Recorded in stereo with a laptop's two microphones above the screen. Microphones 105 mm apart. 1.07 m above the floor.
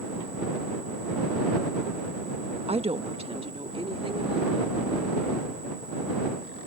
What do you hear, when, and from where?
2.7 s a woman speaking: 70° right (ahead or behind); by 4.8 s 60° right (ahead or behind)